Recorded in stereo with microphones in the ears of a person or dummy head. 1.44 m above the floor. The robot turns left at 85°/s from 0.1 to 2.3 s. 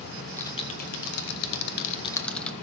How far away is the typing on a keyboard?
About 1.3 m.